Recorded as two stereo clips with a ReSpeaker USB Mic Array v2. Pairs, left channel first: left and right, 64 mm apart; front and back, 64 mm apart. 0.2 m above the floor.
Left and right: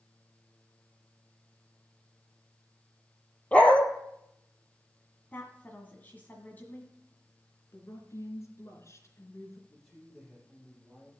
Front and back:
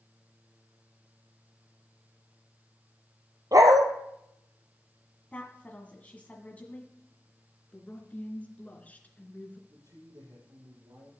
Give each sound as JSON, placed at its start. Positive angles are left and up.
{"t": 3.5, "sound": "a dog barking", "azimuth_deg": 160, "distance_m": 1.3}
{"t": 5.3, "sound": "a woman speaking", "azimuth_deg": 50, "distance_m": 1.6}
{"t": 7.7, "sound": "a woman speaking", "azimuth_deg": 65, "distance_m": 3.0}
{"t": 9.7, "sound": "a man speaking", "azimuth_deg": 175, "distance_m": 6.5}